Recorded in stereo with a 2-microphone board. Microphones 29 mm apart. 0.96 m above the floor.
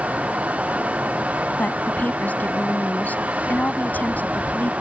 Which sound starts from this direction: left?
A woman speaking, at 1.6 s.